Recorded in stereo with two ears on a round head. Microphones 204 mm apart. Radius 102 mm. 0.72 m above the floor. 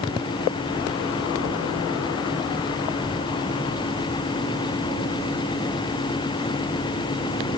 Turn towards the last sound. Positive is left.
No sound to turn to.